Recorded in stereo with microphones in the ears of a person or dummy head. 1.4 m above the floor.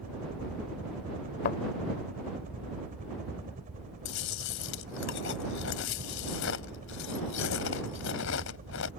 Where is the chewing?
70° left (ahead or behind).